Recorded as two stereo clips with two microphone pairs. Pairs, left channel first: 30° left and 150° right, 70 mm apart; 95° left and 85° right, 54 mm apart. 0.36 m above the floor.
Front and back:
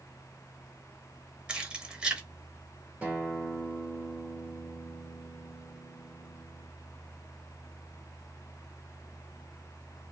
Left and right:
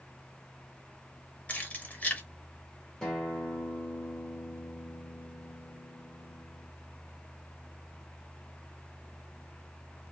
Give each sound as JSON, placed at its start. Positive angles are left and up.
{"t": 1.5, "sound": "keys jangling", "azimuth_deg": 140, "distance_m": 0.8}
{"t": 3.0, "sound": "a guitar", "azimuth_deg": 160, "distance_m": 1.6}